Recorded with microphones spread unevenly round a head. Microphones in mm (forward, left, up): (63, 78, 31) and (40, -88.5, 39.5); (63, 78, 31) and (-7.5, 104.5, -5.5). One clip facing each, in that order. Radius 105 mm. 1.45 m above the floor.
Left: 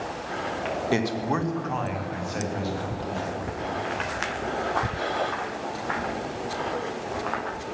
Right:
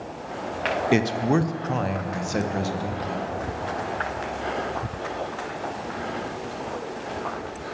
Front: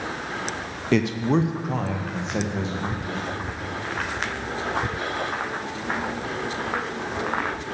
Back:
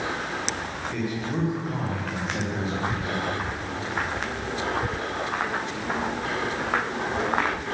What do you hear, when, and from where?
0.9 s a man speaking: 25° right, 0.6 m; by 3.3 s 65° right, 1.7 m